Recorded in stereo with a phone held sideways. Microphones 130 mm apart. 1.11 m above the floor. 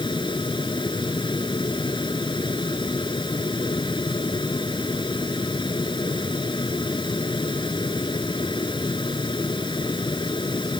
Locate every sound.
0.0 s a fan: 35° left (ahead or behind)